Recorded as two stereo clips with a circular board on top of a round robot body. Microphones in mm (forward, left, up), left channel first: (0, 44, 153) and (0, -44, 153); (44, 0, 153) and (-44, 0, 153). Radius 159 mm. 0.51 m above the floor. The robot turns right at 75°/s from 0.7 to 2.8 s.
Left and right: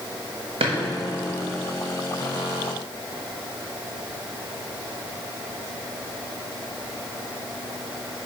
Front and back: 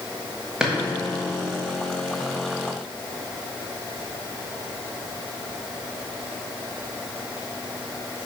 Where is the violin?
No violin in this recording.